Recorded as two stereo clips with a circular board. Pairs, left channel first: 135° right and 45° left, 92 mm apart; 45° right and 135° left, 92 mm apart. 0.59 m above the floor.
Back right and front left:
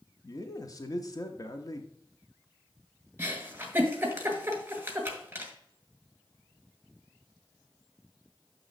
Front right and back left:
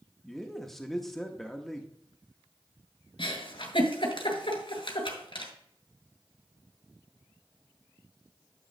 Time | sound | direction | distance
0.2 | a man speaking | 130° right | 0.8 m
3.2 | a giggle | 25° right | 1.9 m